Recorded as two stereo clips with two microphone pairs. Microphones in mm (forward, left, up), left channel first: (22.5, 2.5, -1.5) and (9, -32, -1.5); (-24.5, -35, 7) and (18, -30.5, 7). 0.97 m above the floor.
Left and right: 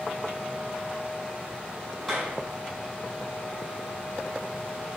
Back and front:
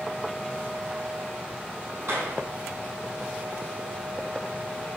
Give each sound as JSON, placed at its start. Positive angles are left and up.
{"t": 2.0, "sound": "a clap", "azimuth_deg": -20, "distance_m": 5.0}